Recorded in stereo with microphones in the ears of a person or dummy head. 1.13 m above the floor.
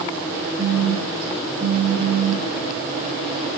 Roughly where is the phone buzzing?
Right.